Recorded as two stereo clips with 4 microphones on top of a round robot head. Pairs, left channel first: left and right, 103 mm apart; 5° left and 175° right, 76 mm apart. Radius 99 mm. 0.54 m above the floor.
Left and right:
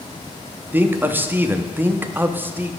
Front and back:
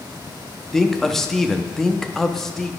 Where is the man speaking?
70° right, 0.7 m.